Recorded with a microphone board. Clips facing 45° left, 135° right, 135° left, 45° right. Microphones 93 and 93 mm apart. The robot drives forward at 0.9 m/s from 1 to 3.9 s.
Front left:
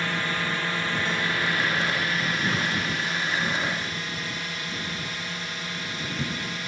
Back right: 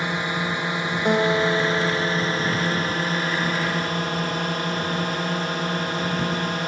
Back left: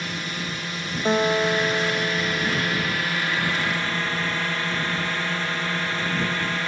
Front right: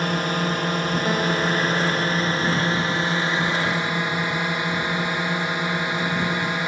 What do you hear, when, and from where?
0.0 s a drone: 65° right; by 6.7 s 115° right
1.1 s a guitar: 160° right; by 3.0 s 165° right